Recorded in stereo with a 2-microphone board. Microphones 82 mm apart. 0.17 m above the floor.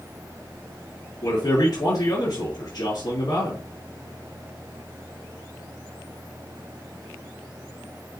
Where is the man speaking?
55° left (ahead or behind), 2.5 m.